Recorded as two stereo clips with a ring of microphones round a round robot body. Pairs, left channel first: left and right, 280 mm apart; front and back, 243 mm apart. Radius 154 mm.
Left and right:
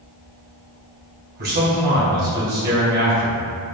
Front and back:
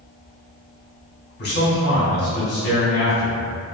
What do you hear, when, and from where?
1.4 s a man speaking: 40° right, 2.0 m